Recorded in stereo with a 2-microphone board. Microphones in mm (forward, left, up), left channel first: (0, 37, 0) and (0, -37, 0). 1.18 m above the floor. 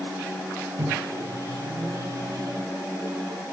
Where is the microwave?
55° right (ahead or behind), 1.5 m.